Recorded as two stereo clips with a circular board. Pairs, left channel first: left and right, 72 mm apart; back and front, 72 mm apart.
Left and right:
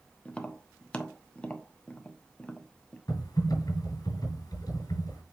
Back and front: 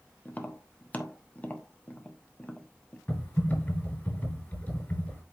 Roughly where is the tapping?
Behind left.